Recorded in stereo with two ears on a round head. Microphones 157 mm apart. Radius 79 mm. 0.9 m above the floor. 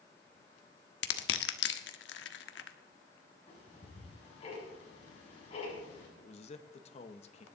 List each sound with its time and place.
1.0 s crushing: 70° left (ahead or behind), 1.1 m
3.5 s ticking: 35° left (ahead or behind), 8 m
6.2 s a man speaking: 35° left (ahead or behind), 1.1 m